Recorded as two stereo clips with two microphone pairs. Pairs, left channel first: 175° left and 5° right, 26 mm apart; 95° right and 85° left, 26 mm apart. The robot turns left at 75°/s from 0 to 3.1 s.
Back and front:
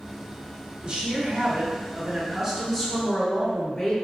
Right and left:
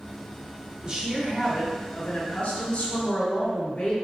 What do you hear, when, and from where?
0.8 s a woman speaking: 45° left, 1.2 m; by 3.9 s 125° right, 1.2 m